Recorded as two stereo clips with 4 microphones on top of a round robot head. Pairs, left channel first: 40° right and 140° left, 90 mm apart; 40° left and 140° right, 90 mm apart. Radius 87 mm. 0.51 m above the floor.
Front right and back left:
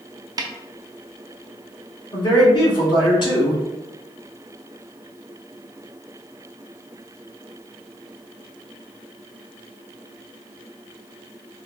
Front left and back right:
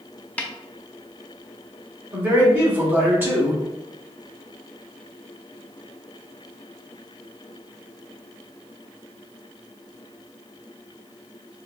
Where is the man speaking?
75° right, 1.9 m.